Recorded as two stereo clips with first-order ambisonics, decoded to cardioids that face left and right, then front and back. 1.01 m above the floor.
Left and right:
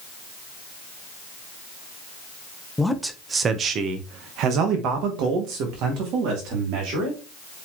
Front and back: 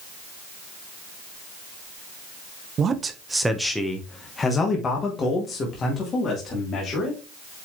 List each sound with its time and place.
2.8 s a man speaking: 170° left, 0.8 m; by 7.2 s 60° right, 2.5 m